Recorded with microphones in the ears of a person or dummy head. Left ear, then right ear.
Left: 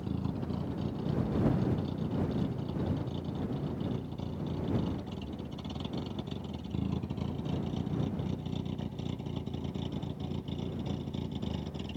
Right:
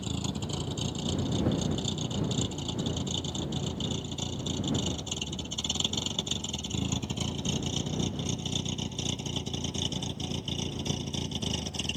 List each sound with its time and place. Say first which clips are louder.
0.0 s a vehicle: right 3 dB; 90° right